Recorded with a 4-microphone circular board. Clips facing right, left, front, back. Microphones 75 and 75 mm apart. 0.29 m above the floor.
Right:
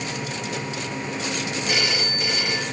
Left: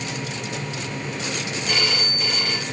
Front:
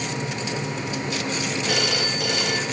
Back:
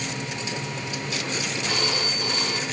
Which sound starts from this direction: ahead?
A phone ringing, at 1.7 s.